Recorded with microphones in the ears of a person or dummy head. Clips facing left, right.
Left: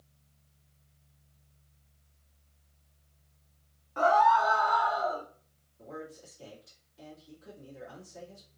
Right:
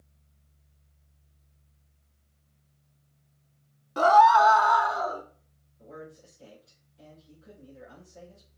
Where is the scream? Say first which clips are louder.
Right 5 dB; 50° right (ahead or behind), 0.5 m; by 5.2 s 65° right (ahead or behind), 1.0 m.